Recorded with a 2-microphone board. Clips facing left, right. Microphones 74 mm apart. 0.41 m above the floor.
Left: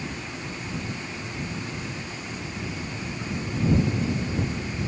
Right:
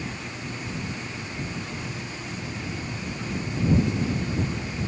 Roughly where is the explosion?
No explosion in this recording.